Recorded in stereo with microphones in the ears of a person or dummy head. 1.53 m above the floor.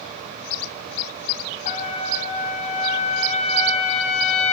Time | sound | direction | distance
1.6 | a trumpet | 40° left (ahead or behind) | 0.8 m